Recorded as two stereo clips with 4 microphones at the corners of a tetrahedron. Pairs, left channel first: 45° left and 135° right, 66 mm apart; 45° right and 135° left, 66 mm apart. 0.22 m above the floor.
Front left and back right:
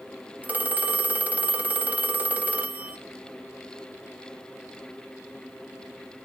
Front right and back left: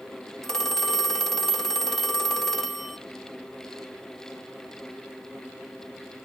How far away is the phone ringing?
About 0.6 m.